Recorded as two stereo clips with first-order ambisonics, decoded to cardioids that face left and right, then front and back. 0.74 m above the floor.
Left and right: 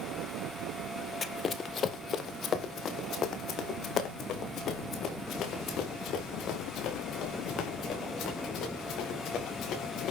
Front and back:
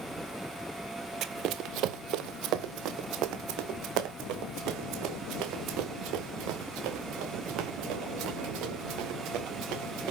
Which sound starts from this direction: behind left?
Running footsteps, at 1.2 s.